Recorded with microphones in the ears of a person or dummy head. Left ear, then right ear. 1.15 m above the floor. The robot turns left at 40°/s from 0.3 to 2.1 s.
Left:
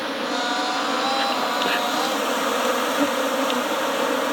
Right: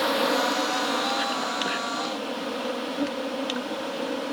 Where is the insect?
160° right; by 4.3 s 130° left.